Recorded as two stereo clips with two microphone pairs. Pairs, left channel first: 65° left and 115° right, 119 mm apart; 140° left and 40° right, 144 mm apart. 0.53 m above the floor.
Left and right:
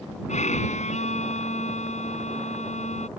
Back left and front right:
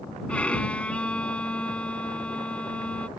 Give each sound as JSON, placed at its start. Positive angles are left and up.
{"t": 0.3, "sound": "a violin", "azimuth_deg": 55}